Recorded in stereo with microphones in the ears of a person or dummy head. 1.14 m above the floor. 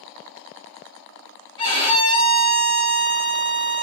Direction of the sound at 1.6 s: 20° left (ahead or behind).